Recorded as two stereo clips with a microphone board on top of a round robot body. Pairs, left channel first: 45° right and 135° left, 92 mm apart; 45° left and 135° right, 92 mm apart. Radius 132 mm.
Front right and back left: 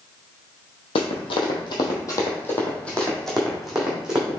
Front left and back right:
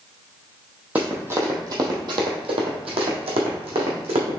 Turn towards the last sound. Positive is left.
turn(degrees=-145)